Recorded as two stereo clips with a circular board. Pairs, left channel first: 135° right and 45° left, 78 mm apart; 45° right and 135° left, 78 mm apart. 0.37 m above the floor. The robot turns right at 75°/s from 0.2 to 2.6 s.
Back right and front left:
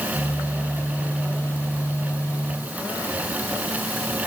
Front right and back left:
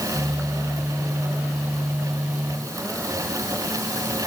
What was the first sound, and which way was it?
Only background noise.